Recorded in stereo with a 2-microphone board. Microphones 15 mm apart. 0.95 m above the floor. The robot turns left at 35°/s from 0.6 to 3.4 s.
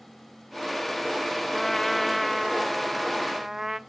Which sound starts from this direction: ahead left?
A trumpet, at 1.5 s.